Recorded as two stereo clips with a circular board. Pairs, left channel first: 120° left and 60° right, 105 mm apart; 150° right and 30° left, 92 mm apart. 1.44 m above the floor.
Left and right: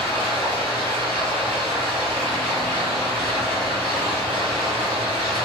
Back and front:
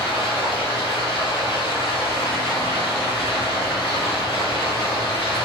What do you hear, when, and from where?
0.0 s running water: 165° right, 1.7 m